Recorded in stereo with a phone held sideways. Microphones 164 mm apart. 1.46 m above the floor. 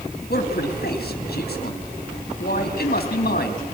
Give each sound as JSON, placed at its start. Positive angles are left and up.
{"t": 0.3, "sound": "a man speaking", "side_deg": 70, "distance_m": 2.5}